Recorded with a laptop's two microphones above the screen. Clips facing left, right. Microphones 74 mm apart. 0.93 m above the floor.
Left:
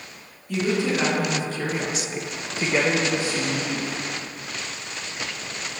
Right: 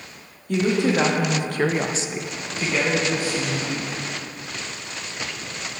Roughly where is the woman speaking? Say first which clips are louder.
Right 3 dB; right.